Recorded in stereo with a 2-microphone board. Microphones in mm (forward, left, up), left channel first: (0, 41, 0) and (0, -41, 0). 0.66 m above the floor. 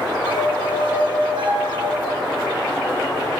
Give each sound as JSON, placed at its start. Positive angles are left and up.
{"t": 0.2, "sound": "a violin", "side_deg": -75, "distance_m": 5.5}